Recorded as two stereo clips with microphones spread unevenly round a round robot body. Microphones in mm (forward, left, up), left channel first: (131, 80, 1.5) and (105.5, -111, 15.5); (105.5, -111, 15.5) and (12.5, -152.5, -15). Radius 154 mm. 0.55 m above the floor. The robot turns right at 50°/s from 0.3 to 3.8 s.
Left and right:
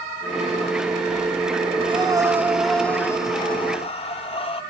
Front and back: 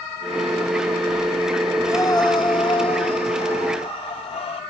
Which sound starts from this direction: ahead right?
Breathing, at 1.8 s.